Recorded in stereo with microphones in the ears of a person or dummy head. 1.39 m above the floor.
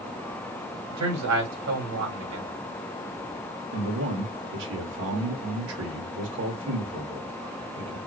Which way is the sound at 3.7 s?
65° right (ahead or behind).